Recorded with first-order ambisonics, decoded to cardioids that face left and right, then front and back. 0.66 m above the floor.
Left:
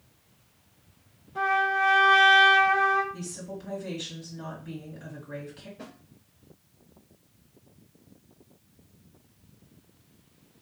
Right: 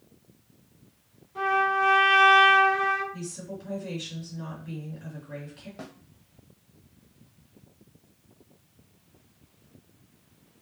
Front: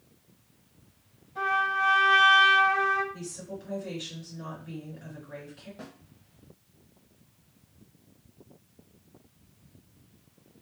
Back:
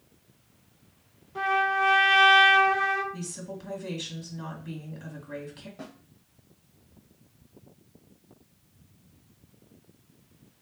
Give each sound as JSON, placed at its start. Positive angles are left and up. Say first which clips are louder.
{"t": 1.4, "sound": "a trumpet", "louder": "even, back 1 dB", "azimuth_deg": 180, "distance_m": 1.5}
{"t": 3.1, "sound": "a woman speaking", "louder": "even, back 1 dB", "azimuth_deg": 170, "distance_m": 1.6}
{"t": 5.8, "sound": "a snare drum", "louder": "right 5 dB, back 3 dB", "azimuth_deg": -90, "distance_m": 1.1}